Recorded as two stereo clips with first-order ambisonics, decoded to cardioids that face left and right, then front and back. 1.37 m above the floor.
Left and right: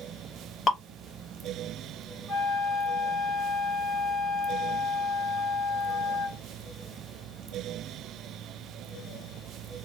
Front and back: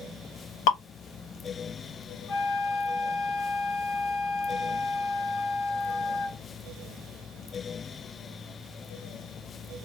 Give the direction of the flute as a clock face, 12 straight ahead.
12 o'clock.